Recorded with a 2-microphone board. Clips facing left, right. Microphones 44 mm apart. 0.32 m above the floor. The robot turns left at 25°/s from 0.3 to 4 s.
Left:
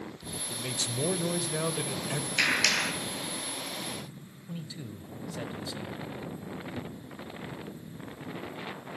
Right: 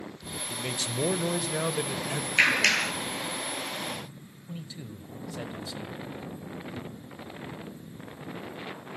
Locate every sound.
0.5 s a man speaking: 20° right (ahead or behind), 1.2 m; by 2.3 s centre (ahead or behind), 1.2 m
2.4 s a clap: 35° right (ahead or behind), 6 m; by 2.9 s 45° right (ahead or behind), 6 m
4.5 s a man speaking: centre (ahead or behind), 1.5 m